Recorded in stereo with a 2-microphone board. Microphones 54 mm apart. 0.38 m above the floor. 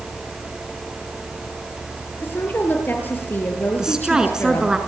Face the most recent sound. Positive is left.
turn(degrees=-10)  # may be behind; listen again after turning